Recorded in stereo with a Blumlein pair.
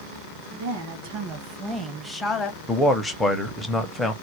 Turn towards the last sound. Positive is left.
turn(degrees=10)